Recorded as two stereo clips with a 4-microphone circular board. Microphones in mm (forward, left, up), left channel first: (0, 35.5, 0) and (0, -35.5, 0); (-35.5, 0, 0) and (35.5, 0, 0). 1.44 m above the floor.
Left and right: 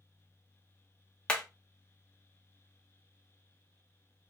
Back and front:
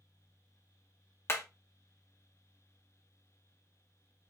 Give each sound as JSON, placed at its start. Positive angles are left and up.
{"t": 1.3, "sound": "hammering", "azimuth_deg": 160, "distance_m": 1.0}